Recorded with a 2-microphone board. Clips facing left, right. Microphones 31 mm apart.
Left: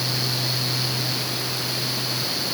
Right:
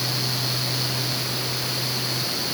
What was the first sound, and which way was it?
Only background noise.